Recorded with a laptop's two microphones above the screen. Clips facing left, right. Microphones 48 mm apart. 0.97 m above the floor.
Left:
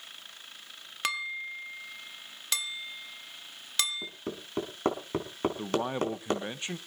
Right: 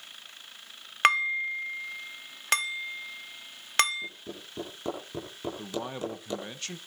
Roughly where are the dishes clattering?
Right.